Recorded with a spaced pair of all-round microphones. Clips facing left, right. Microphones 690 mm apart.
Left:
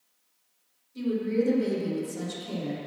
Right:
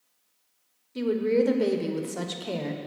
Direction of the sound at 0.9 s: 80° right.